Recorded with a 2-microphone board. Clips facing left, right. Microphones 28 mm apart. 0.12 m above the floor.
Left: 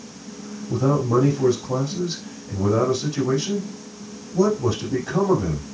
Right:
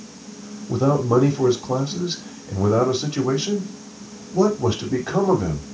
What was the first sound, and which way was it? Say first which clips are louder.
A man speaking: right 2 dB; 35° right (ahead or behind).